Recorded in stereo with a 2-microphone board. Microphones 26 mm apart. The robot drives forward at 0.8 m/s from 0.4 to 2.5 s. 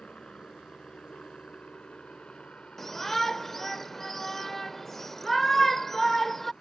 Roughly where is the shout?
Centre.